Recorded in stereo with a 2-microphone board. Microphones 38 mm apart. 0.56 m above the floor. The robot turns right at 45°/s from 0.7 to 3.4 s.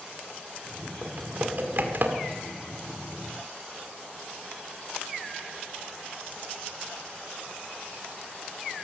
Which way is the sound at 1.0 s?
35° right (ahead or behind).